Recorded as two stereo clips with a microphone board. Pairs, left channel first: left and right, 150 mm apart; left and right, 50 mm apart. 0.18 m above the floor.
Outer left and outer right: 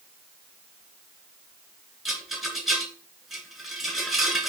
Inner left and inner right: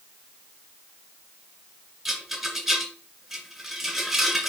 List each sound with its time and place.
2.0 s a rattle: centre (ahead or behind), 2.5 m